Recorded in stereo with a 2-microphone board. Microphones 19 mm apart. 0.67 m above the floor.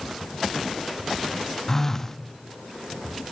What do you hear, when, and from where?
1.7 s a phone buzzing: 20° left (ahead or behind), 0.6 m